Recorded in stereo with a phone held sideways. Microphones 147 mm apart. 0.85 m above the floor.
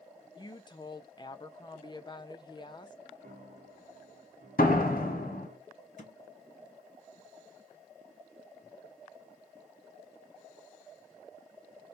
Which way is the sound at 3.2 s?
80° right.